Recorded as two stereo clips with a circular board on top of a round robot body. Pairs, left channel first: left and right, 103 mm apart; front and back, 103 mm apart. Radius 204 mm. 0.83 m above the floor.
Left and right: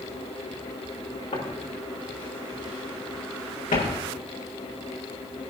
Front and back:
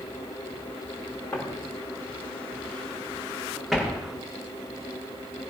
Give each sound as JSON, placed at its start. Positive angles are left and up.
{"t": 1.3, "sound": "footsteps", "azimuth_deg": 70, "distance_m": 5.5}